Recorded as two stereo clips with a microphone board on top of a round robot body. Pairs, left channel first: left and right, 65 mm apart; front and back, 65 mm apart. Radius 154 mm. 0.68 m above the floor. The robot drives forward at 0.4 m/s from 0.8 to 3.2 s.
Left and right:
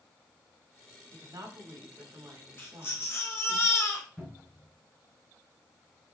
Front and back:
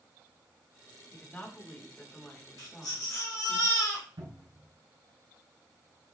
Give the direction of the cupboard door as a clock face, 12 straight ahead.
6 o'clock.